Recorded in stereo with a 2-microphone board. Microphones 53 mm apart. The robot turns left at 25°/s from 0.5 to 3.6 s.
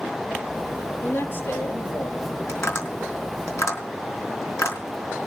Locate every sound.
1.0 s a man speaking: 140° left, 5 m; by 2.4 s 110° left, 5 m
2.5 s tapping: 55° left (ahead or behind), 4 m; by 4.8 s 70° left (ahead or behind), 4 m